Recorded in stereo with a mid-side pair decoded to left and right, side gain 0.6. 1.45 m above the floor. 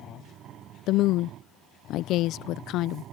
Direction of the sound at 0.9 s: 65° left.